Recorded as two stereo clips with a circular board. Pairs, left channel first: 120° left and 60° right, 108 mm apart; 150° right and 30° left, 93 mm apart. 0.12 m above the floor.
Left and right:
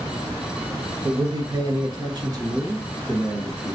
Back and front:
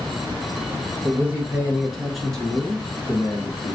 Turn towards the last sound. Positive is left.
turn(degrees=-110)